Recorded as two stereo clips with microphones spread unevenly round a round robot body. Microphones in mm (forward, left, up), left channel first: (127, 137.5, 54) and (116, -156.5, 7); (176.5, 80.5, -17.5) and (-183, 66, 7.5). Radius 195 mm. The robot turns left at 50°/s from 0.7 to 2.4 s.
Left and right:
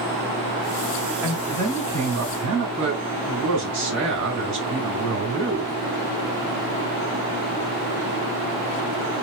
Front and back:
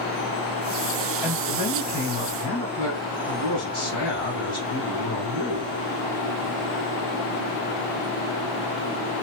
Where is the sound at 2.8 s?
80° right, 2 m.